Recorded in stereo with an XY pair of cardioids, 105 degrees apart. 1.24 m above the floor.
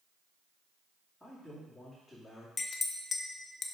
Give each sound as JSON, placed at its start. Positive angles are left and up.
{"t": 1.2, "sound": "a man speaking", "azimuth_deg": 5, "distance_m": 2.5}
{"t": 2.6, "sound": "a clink", "azimuth_deg": 35, "distance_m": 0.8}